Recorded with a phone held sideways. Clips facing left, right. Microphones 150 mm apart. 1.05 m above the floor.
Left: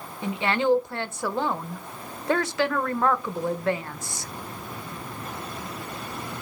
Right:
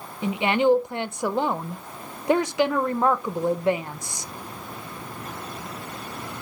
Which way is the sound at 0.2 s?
20° right (ahead or behind).